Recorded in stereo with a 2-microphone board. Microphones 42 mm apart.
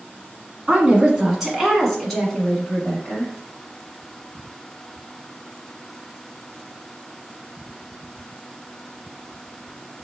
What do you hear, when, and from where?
0.7 s a woman speaking: 25° right (ahead or behind), 1.4 m; by 3.3 s 30° left (ahead or behind), 1.6 m